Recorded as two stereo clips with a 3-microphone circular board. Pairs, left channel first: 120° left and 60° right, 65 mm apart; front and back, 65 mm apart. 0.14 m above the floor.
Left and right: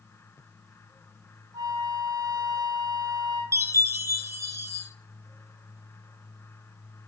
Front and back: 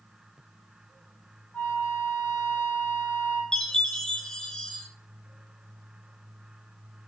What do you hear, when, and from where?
1.5 s a flute: 70° right, 3.5 m
3.5 s a chime: 75° right, 1.5 m